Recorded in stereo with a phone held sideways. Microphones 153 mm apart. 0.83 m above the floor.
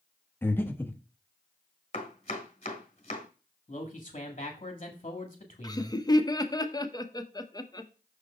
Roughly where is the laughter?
Left.